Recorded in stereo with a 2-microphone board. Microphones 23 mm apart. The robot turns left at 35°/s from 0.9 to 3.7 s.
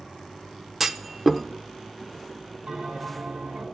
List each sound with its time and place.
0.8 s a clunk: 10° right (ahead or behind), 0.5 m; by 1.4 s 5° left (ahead or behind), 0.5 m
2.7 s a bell: 40° right, 3 m; by 3.6 s 75° right, 3 m